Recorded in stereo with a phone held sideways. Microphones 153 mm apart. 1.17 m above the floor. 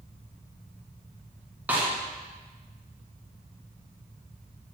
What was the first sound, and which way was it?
A snare drum, 10° right (ahead or behind).